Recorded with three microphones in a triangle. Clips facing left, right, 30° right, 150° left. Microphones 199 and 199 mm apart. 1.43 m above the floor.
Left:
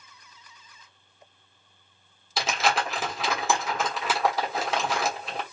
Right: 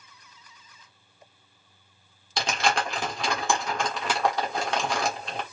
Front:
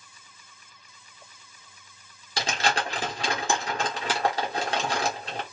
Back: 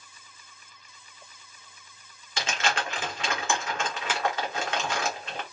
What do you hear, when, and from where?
2.4 s crumpling: 5° left, 1.4 m